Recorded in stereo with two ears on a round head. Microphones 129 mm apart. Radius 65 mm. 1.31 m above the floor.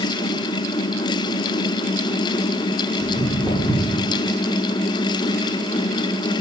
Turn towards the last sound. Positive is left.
turn(degrees=-20)  # may be behind; listen again after turning